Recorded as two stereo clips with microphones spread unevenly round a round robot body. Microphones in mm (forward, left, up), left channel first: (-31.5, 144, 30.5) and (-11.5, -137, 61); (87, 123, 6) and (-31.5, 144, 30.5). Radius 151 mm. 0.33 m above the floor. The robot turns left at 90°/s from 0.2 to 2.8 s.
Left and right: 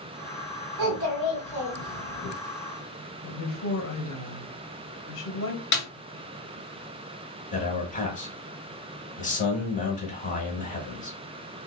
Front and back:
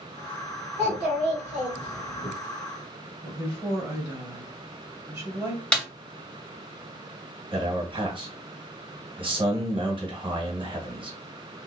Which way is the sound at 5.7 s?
60° left.